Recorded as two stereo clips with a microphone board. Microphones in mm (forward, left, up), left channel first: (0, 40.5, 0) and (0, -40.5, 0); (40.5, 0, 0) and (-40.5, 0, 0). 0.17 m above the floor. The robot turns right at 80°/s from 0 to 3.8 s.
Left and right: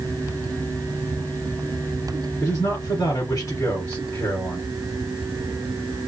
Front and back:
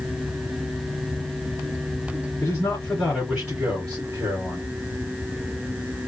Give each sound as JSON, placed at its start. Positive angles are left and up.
{"t": 2.4, "sound": "a man speaking", "azimuth_deg": 25, "distance_m": 2.5}